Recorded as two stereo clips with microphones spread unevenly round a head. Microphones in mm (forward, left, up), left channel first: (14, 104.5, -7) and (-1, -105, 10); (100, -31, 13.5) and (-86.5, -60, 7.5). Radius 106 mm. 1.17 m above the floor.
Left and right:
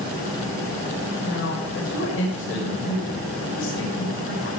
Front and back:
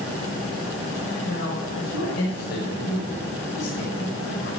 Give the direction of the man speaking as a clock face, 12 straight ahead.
10 o'clock.